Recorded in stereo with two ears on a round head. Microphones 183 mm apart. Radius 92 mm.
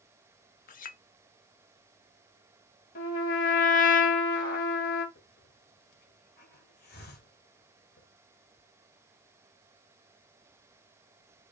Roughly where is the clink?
Left.